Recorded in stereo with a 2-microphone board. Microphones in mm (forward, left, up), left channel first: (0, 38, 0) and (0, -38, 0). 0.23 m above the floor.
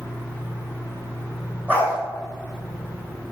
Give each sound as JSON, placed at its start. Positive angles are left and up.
{"t": 1.7, "sound": "a dog barking", "side_deg": -20, "distance_m": 2.5}